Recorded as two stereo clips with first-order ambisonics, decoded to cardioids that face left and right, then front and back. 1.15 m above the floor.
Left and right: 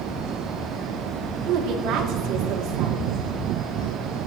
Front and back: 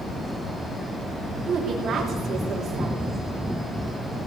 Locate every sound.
1.5 s a woman speaking: 120° right, 3 m